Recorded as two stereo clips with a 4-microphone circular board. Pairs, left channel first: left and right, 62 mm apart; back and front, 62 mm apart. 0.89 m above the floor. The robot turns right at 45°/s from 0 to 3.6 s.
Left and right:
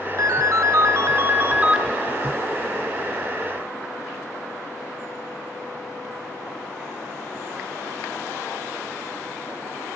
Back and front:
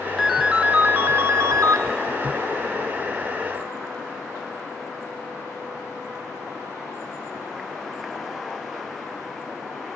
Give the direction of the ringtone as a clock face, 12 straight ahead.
3 o'clock.